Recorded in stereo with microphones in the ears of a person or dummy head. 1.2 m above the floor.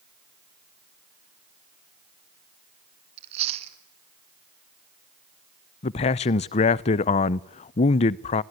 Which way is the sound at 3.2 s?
35° right (ahead or behind).